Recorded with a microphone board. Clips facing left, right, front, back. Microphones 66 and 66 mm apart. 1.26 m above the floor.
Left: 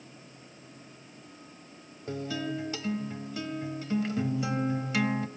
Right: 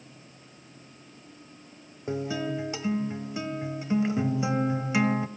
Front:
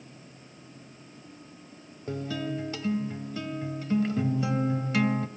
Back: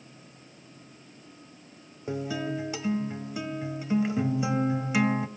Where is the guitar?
120° right, 1.1 m.